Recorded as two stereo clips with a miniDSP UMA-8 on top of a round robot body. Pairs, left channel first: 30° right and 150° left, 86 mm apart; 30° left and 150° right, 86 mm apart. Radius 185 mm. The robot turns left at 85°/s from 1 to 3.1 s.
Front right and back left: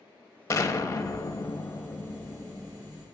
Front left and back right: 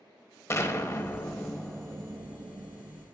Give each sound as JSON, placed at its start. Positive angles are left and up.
{"t": 0.5, "sound": "an explosion", "azimuth_deg": 0, "distance_m": 1.0}